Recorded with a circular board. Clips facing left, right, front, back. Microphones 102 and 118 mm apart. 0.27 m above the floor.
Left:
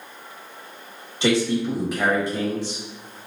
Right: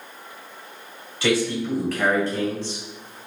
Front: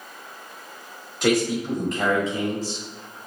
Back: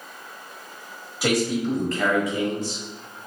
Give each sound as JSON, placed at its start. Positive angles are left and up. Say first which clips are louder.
{"t": 1.2, "sound": "a man speaking", "louder": "left 2 dB, front 1 dB", "azimuth_deg": 105, "distance_m": 0.9}